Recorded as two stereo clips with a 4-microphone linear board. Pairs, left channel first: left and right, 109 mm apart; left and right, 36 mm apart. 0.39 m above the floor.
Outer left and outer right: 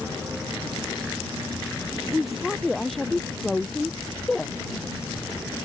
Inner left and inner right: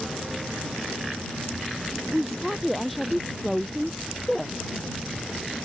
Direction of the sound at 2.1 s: Centre (ahead or behind).